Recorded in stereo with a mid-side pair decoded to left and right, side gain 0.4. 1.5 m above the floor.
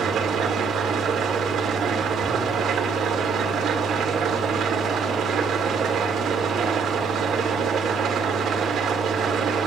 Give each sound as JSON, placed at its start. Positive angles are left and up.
{"t": 0.0, "sound": "an engine running", "azimuth_deg": -70, "distance_m": 2.0}